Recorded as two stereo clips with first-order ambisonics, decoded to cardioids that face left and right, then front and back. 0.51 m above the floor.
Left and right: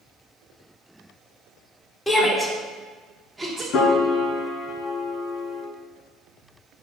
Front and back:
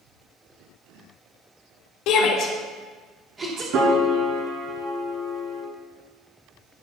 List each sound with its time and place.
2.1 s a shout: 15° left, 2.0 m; by 3.6 s 160° right, 1.3 m
3.7 s a piano: 135° left, 1.5 m